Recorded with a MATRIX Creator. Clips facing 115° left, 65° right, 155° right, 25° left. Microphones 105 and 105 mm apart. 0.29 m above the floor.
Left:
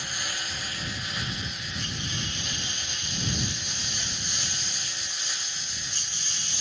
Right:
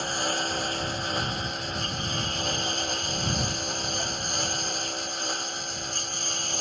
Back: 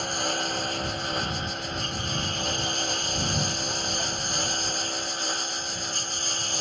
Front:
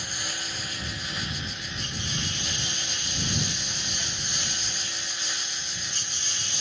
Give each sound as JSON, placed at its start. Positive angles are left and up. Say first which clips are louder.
{"t": 0.0, "sound": "a lawn mower", "louder": "right 8 dB, back 9 dB", "azimuth_deg": -115}